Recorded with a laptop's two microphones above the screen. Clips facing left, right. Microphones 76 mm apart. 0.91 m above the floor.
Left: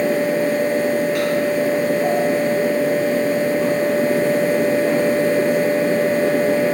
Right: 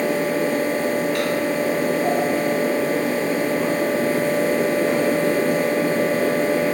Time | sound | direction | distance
0.0 | a fan | 20° left (ahead or behind) | 0.9 m